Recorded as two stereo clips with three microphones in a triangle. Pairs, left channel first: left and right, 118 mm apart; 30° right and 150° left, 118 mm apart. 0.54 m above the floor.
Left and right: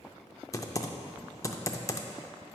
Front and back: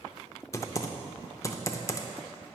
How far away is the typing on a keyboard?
About 0.5 m.